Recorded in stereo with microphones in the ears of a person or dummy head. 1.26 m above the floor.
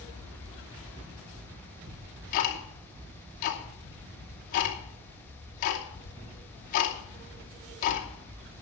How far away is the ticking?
About 2.5 m.